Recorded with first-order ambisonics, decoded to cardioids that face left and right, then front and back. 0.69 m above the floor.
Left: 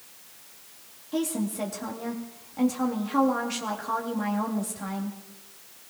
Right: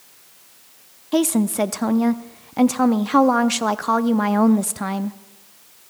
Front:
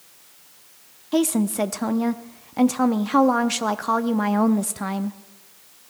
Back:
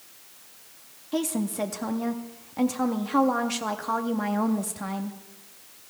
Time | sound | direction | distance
1.1 | a woman speaking | 60° right | 0.6 m